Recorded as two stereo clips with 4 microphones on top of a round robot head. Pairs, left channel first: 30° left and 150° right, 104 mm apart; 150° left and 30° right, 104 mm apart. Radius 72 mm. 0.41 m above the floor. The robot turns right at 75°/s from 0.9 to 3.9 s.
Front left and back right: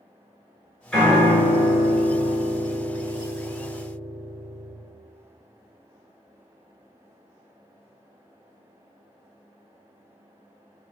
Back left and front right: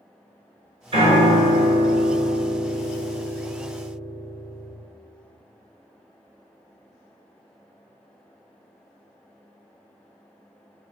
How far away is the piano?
About 2.0 m.